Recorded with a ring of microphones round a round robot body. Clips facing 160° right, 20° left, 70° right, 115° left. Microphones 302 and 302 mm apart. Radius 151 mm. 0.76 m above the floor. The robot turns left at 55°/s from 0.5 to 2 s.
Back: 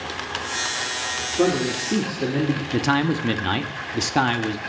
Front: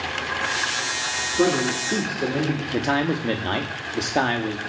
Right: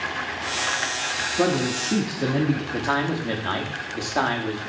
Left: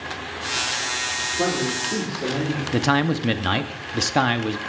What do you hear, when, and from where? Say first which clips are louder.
1.4 s a man speaking: even, right 2 dB; 60° right, 2.0 m; by 2.6 s 95° right, 2.0 m
2.7 s a man speaking: even, left 4 dB; 140° left, 1.0 m